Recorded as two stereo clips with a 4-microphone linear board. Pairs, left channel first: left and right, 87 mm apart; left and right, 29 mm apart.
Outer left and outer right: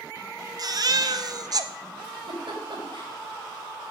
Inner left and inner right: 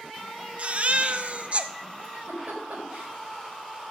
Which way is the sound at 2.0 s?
65° right (ahead or behind).